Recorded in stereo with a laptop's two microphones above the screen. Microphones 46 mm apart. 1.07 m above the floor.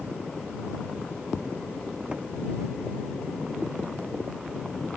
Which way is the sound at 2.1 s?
25° right (ahead or behind).